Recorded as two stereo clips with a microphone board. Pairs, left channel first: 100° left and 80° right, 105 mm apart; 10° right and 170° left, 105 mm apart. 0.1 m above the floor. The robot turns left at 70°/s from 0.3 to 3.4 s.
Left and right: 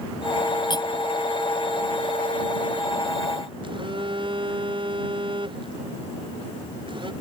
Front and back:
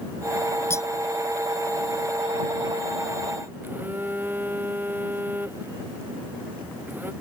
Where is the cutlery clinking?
55° left; by 0.9 s 45° left.